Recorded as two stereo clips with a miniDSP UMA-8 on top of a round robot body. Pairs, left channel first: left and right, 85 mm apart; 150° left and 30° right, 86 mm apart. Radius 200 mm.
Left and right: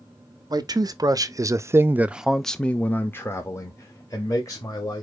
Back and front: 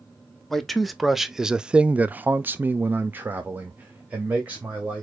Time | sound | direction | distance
0.5 | a man speaking | 125° right | 1.1 m